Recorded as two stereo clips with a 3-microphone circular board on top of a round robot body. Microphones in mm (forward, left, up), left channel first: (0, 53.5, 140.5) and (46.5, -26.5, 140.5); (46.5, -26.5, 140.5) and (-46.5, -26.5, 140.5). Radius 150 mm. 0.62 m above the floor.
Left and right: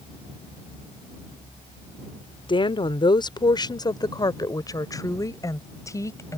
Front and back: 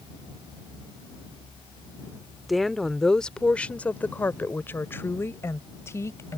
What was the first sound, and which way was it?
A woman speaking, 90° left.